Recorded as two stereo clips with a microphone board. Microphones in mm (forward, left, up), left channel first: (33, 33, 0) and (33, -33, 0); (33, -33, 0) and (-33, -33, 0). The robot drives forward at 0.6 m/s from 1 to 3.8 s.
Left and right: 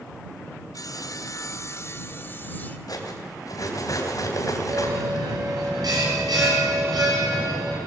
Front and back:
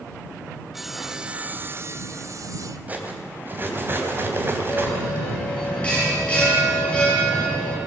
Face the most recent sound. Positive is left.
turn(degrees=-75)